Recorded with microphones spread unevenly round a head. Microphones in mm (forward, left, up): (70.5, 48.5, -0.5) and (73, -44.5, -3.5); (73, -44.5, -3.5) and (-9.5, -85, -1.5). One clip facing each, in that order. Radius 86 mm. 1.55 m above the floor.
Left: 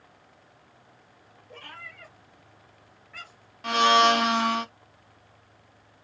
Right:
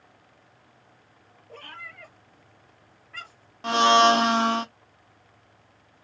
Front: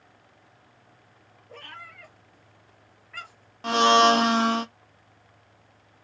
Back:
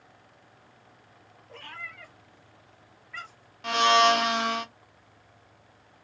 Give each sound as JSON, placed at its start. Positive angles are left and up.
{"t": 1.5, "sound": "a cat meowing", "azimuth_deg": -60, "distance_m": 3.5}
{"t": 3.6, "sound": "a blender", "azimuth_deg": -30, "distance_m": 0.6}